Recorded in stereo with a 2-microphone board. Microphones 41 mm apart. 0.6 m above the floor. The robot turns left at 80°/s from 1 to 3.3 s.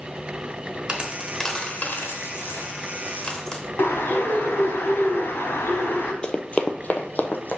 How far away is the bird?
About 1.1 m.